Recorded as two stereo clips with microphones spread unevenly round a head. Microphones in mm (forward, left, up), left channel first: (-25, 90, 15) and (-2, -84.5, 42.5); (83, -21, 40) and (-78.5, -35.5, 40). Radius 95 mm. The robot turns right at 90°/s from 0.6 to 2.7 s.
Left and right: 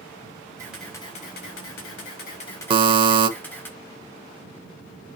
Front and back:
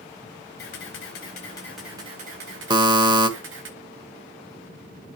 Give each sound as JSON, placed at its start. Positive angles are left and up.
{"t": 0.6, "sound": "a camera shutter", "azimuth_deg": -10, "distance_m": 4.0}
{"t": 2.7, "sound": "a buzzer", "azimuth_deg": -120, "distance_m": 1.0}